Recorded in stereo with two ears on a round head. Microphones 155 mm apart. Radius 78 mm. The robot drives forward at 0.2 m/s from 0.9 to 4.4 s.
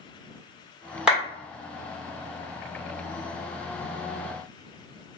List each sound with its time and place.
1.1 s a clap: 5° right (ahead or behind), 1.4 m